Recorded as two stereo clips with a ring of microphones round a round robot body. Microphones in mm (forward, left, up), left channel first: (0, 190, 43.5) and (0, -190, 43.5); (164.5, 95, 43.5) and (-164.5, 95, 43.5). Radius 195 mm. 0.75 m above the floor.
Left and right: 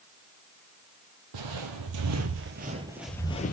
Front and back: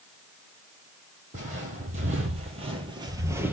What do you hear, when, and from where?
1.3 s footsteps: 110° right, 1.2 m; by 3.5 s 105° left, 0.7 m